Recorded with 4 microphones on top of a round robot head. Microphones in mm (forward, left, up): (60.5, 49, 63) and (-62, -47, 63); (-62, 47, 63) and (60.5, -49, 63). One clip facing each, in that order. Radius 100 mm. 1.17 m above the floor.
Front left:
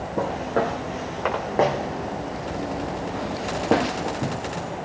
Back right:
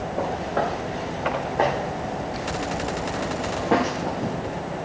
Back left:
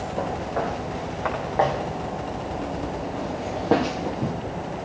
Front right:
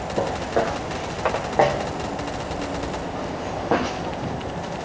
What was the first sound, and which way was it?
Footsteps, 10° left.